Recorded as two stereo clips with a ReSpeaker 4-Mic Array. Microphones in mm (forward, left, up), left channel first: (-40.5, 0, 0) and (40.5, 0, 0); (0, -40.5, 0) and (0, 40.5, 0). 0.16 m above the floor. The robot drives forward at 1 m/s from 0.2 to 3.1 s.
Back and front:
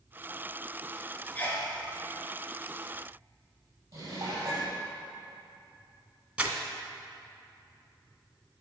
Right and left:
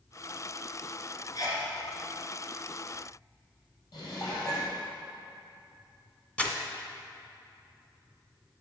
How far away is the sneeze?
About 2.5 m.